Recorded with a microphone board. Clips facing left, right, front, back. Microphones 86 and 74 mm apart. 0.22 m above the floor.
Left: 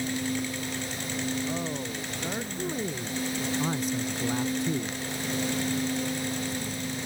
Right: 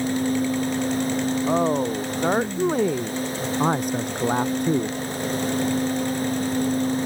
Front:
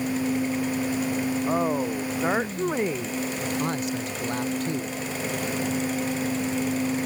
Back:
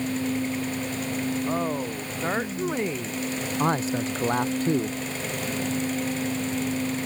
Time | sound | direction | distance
1.5 | a woman speaking | 75° right | ?
3.6 | a man speaking | 125° right | ?